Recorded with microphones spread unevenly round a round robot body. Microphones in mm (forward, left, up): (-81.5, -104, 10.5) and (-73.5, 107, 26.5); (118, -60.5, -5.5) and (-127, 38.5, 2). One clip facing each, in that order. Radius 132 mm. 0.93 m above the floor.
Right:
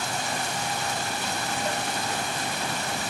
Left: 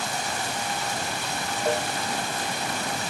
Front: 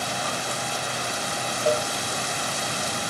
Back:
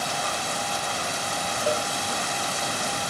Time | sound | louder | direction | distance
1.6 | a cowbell | left 8 dB, front 3 dB | 25° left | 1.9 m